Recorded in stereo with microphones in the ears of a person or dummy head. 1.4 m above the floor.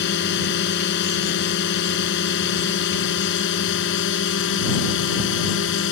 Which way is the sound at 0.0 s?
60° left (ahead or behind).